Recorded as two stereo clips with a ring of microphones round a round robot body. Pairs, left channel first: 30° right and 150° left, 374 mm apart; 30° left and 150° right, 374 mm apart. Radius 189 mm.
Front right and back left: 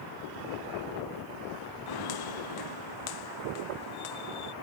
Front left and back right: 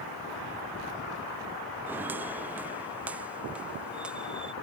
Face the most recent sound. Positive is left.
turn(degrees=-60)